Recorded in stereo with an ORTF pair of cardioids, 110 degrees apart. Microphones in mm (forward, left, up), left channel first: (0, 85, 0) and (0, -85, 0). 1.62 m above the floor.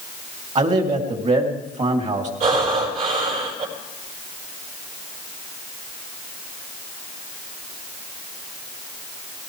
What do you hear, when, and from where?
0.6 s a man speaking: 45° right, 3 m
2.4 s breathing: 55° right, 5 m